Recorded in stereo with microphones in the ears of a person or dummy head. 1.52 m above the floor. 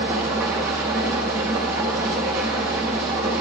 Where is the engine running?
10° right (ahead or behind), 0.8 m.